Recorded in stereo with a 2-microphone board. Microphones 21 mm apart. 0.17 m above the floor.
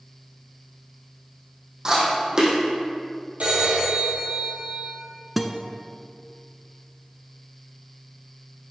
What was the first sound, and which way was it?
Chewing, 25° right (ahead or behind).